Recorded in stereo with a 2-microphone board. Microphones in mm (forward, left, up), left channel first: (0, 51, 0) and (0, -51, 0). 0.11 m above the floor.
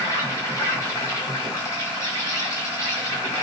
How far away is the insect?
About 1.7 m.